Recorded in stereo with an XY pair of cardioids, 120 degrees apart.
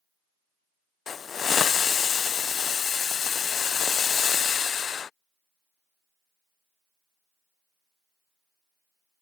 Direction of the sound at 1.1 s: 40° left.